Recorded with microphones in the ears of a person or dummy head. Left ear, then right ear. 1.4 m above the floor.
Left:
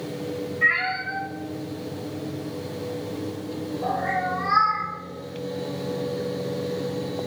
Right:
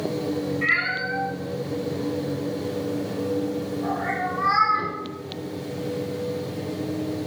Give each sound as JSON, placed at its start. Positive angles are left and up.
{"t": 0.6, "sound": "a cat meowing", "side_deg": 5, "distance_m": 0.6}